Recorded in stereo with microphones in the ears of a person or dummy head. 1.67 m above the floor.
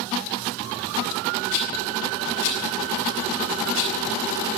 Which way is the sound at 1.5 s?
70° left (ahead or behind).